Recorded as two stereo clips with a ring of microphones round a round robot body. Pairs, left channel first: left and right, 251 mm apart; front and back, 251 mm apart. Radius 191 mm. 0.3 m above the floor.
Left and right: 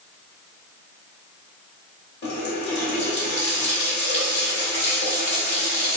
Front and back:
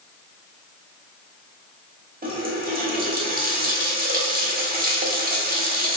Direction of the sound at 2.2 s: 130° left.